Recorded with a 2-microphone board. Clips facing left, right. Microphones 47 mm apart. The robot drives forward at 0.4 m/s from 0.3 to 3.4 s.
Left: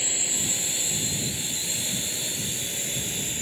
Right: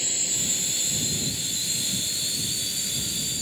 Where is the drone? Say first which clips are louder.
Left 1 dB; 15° left (ahead or behind); by 3.4 s 35° left (ahead or behind).